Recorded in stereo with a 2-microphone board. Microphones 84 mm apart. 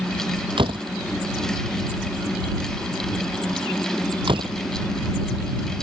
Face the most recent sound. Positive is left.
turn(degrees=-80)